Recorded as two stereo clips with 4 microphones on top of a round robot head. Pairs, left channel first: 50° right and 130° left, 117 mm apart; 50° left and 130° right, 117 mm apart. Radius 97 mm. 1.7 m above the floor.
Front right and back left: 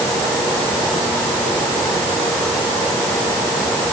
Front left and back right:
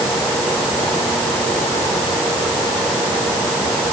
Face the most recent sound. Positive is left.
No sound to turn to.